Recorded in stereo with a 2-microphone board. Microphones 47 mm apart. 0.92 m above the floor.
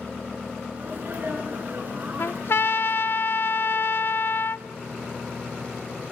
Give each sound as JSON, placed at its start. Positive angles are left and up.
{"t": 0.8, "sound": "a sneeze", "side_deg": -35, "distance_m": 9.5}
{"t": 2.2, "sound": "a trumpet", "side_deg": 55, "distance_m": 0.9}